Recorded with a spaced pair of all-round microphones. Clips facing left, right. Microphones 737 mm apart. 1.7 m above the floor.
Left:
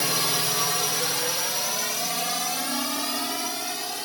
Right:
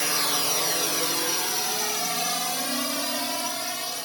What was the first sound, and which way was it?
A drone, 60° left (ahead or behind).